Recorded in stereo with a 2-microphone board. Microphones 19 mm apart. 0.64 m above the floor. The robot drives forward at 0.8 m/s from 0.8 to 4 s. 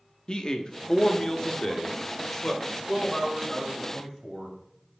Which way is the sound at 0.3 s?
45° left (ahead or behind).